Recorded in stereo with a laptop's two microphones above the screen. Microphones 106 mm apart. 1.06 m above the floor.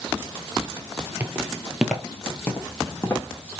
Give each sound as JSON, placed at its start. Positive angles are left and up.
{"t": 1.2, "sound": "footsteps", "side_deg": -25, "distance_m": 1.1}